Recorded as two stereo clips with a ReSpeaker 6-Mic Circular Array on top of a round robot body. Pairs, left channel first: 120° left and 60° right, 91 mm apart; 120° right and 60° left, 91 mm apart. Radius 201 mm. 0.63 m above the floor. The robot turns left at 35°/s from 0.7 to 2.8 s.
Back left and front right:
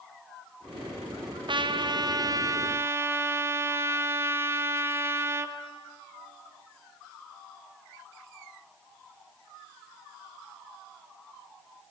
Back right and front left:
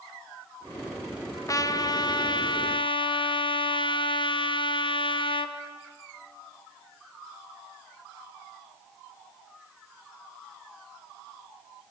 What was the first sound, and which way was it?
A trumpet, 70° right.